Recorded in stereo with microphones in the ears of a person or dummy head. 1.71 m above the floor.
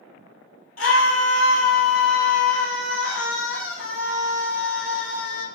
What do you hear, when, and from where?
0.8 s a scream: 90° left, 1.6 m